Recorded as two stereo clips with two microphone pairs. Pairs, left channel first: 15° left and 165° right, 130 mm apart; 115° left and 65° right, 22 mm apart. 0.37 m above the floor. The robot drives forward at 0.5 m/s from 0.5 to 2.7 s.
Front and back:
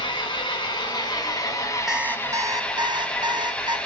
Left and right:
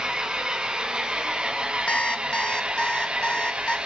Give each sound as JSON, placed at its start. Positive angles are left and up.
{"t": 0.0, "sound": "an engine running", "azimuth_deg": -35, "distance_m": 2.0}
{"t": 1.9, "sound": "an alarm clock", "azimuth_deg": 110, "distance_m": 0.5}